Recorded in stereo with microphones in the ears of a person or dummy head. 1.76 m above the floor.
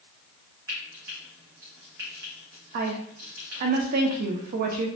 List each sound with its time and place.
0.7 s frying: 10° right (ahead or behind), 1.0 m
2.7 s a woman speaking: 45° right (ahead or behind), 0.7 m